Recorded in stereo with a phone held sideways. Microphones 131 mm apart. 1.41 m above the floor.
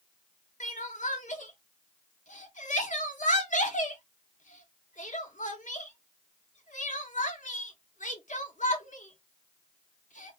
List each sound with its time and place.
0.6 s crying: 70° left (ahead or behind), 0.8 m